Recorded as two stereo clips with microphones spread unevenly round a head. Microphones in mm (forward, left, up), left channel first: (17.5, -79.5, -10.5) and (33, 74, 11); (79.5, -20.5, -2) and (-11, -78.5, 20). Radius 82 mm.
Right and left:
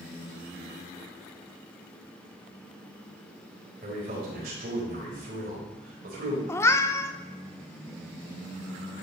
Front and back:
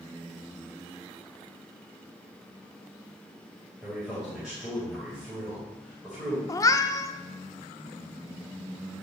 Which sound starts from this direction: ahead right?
A cat meowing, at 6.5 s.